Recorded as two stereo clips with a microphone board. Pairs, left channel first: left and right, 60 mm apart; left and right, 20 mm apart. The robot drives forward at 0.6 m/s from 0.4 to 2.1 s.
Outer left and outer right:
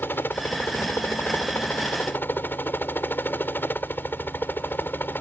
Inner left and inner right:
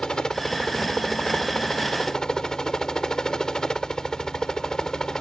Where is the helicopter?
35° left (ahead or behind).